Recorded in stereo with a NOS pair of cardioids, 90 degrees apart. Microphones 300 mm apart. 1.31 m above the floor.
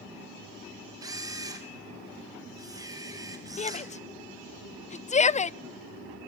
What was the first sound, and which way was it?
A camera shutter, 15° right.